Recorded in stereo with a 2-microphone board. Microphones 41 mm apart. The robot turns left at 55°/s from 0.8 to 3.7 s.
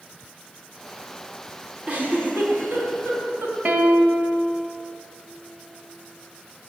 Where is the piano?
45° right (ahead or behind), 1.3 m; by 4.4 s 50° right (ahead or behind), 1.3 m.